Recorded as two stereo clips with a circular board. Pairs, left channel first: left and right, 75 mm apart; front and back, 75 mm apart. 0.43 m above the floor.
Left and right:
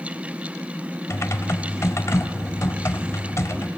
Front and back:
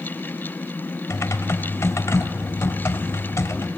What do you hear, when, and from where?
1.1 s typing on a keyboard: 45° left, 1.0 m